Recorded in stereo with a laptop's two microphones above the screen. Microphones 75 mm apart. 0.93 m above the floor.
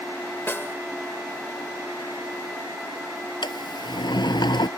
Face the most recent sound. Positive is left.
turn(degrees=80)